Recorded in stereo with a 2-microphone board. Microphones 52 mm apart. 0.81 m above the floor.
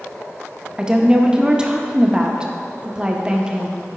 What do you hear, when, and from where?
0.8 s a woman speaking: 20° right (ahead or behind), 0.8 m